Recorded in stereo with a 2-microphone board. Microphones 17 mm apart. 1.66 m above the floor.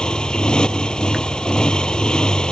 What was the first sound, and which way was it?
A motorcycle, 55° left (ahead or behind).